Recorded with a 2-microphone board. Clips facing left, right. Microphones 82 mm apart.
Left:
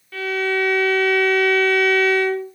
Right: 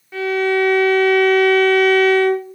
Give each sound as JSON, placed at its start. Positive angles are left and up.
{"t": 0.1, "sound": "a violin", "side_deg": -20, "distance_m": 0.6}